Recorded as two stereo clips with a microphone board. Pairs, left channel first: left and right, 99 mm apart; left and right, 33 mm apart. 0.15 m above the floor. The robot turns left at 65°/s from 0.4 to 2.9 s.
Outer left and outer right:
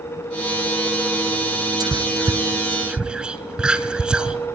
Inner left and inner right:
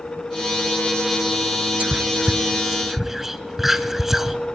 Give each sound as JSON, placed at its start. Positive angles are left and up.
{"t": 1.8, "sound": "whispering", "side_deg": -45, "distance_m": 1.6}